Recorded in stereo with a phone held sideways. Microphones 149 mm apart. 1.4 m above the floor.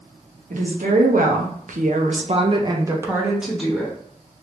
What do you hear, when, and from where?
0.5 s a woman speaking: 65° right (ahead or behind), 1.3 m; by 4.0 s 5° left (ahead or behind), 1.2 m